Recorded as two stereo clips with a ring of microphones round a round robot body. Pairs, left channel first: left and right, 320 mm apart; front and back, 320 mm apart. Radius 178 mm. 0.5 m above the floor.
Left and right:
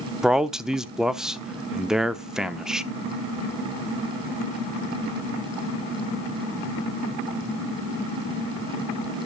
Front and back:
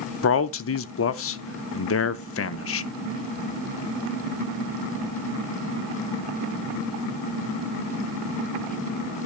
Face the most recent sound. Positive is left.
turn(degrees=-5)